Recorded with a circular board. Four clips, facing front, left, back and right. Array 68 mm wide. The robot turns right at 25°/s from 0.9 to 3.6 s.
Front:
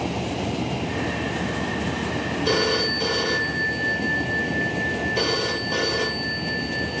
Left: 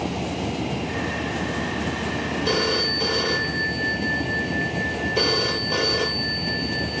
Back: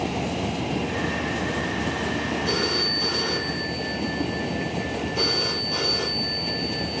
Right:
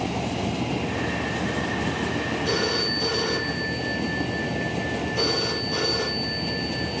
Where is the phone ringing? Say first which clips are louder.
Left 4 dB, front 4 dB; 30° left, 3.5 m; by 7.0 s 60° left, 3.5 m.